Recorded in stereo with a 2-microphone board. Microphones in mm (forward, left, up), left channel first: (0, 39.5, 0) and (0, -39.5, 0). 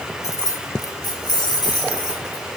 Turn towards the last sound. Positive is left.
turn(degrees=75)  # may be behind; listen again after turning